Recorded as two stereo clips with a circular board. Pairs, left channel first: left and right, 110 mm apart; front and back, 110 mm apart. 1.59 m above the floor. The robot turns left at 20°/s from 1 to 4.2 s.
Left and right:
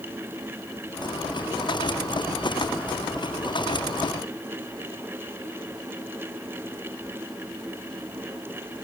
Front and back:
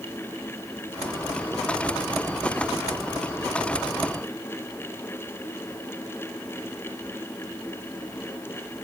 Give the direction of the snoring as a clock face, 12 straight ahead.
No snoring in this recording.